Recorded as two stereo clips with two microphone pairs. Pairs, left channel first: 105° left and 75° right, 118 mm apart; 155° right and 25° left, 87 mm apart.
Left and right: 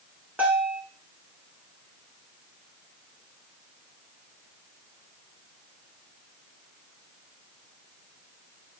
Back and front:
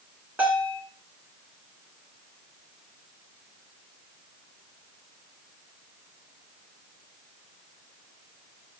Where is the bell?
15° right, 1.7 m.